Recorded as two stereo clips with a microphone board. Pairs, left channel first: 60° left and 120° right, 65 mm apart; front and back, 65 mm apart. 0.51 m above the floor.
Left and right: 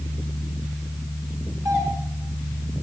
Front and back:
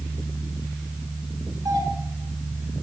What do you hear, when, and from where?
1.6 s a doorbell: 150° right, 8.5 m